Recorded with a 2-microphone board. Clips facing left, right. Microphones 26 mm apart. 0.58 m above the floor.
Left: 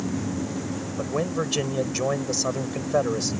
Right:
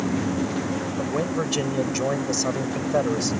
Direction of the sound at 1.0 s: 5° left (ahead or behind).